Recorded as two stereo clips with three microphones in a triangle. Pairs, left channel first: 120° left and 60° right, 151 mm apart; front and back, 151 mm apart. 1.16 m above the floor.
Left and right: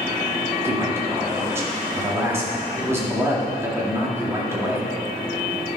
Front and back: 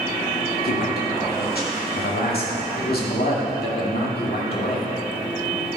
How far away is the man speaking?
About 2 m.